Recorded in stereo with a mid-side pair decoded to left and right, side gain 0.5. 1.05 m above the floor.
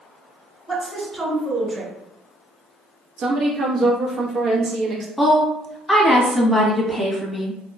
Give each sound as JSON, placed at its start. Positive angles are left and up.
{"t": 0.7, "sound": "a woman speaking", "azimuth_deg": -5, "distance_m": 1.6}
{"t": 3.2, "sound": "a woman speaking", "azimuth_deg": -50, "distance_m": 0.9}
{"t": 5.2, "sound": "a woman speaking", "azimuth_deg": 10, "distance_m": 1.1}